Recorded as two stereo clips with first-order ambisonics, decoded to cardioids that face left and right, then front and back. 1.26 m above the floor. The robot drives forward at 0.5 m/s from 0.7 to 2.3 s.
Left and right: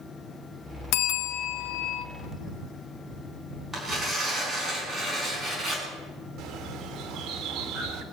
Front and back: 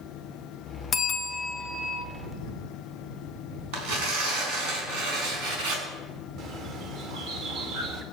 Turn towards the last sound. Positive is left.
turn(degrees=-140)